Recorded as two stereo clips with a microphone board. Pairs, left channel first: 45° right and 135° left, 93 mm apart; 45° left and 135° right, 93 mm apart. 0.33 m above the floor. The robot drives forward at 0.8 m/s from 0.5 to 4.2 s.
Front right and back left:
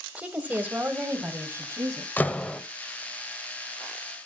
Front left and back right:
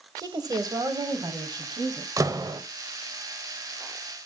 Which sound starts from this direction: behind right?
A woman speaking, at 0.2 s.